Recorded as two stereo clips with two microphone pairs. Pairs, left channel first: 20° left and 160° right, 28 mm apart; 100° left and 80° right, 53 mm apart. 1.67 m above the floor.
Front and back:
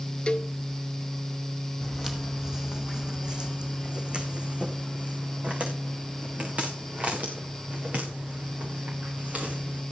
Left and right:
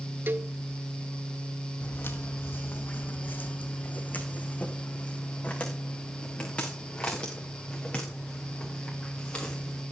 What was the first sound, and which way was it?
A cowbell, 35° right.